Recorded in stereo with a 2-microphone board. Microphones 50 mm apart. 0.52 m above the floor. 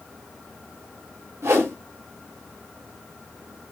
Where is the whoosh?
55° right (ahead or behind), 1.3 m.